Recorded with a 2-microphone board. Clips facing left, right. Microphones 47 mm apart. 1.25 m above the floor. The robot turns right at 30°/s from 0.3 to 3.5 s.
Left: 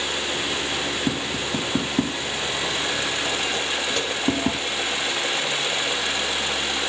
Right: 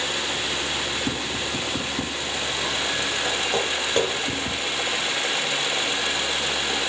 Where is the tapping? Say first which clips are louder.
Left 2 dB; 35° left (ahead or behind), 3 m; by 4.5 s 75° left (ahead or behind), 3 m.